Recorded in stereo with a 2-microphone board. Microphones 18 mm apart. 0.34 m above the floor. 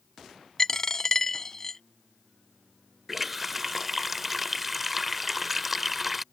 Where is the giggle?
I don't hear a giggle.